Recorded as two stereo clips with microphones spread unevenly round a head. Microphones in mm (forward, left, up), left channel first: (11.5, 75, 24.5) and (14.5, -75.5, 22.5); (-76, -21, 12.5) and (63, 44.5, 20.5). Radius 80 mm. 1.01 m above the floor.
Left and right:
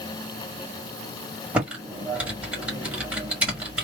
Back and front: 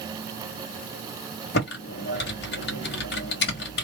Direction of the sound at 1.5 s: 170° right.